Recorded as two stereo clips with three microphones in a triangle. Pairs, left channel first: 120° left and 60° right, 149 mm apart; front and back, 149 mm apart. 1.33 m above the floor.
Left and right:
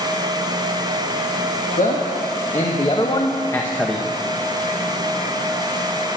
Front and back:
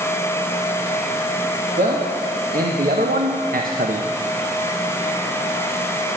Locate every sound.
1.8 s a man speaking: 150° left, 1.6 m; by 4.1 s 145° right, 0.9 m